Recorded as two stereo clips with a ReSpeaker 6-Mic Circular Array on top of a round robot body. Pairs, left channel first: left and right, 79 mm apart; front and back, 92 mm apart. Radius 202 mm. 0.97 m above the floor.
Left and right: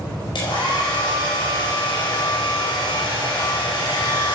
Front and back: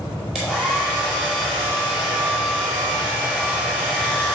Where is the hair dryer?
95° left, 4.5 m.